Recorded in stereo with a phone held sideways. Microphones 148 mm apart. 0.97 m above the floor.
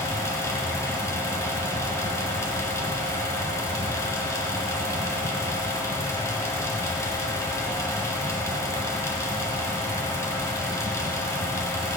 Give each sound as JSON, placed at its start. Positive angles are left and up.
{"t": 0.0, "sound": "a fan", "side_deg": 20, "distance_m": 1.7}